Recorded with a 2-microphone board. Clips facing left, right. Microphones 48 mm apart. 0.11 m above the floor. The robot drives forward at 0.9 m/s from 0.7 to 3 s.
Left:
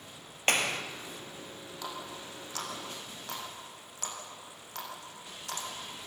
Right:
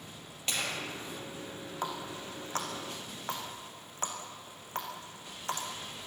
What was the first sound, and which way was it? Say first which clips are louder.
A clap: left 6 dB; 55° left (ahead or behind).